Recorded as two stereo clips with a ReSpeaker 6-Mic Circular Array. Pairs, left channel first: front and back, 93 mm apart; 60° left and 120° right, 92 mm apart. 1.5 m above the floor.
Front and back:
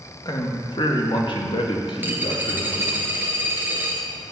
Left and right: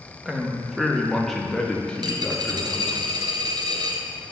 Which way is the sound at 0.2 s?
40° right.